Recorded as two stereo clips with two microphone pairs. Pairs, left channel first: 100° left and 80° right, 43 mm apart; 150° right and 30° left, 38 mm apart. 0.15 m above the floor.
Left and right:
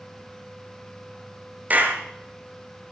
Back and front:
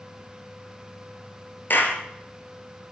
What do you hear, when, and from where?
1.7 s a clap: 130° right, 2.5 m